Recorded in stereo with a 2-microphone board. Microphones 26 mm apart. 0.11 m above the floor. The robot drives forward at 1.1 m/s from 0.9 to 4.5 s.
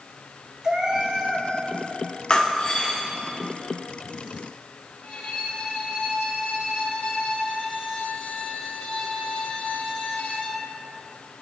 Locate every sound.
0.6 s a cat meowing: 35° right (ahead or behind), 1.4 m; by 1.5 s 25° right (ahead or behind), 2.0 m
2.3 s breaking glass: 30° left (ahead or behind), 3 m; by 3.0 s 25° left (ahead or behind), 3.5 m
5.0 s a violin: 60° left (ahead or behind), 2 m